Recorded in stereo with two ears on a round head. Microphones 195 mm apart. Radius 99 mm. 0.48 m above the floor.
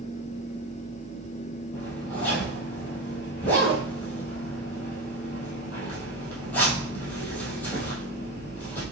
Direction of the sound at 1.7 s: 10° left (ahead or behind).